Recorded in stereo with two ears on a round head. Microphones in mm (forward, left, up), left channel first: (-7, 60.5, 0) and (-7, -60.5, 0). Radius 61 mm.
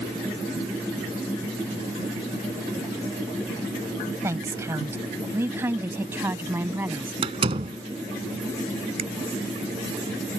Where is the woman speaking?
20° right (ahead or behind); by 7.1 s 15° right (ahead or behind).